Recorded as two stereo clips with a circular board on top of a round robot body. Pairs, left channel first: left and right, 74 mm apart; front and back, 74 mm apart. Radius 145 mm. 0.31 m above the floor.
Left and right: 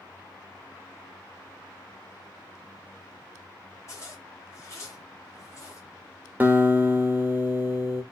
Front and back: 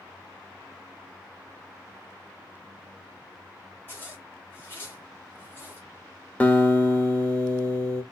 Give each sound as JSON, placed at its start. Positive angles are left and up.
{"t": 3.9, "sound": "a zipper", "azimuth_deg": 55, "distance_m": 2.0}
{"t": 6.4, "sound": "a guitar", "azimuth_deg": -50, "distance_m": 1.4}